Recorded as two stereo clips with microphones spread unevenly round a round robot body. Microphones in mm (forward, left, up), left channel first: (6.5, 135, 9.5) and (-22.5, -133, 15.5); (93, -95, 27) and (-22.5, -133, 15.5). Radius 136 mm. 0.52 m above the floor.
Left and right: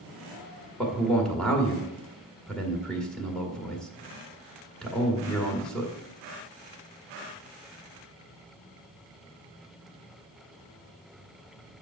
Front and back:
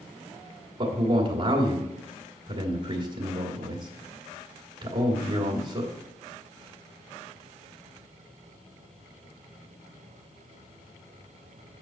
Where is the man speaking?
170° left, 1.9 m.